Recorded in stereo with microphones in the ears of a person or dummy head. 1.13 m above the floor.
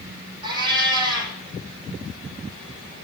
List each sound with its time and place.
0.4 s a cat meowing: 25° right (ahead or behind), 5 m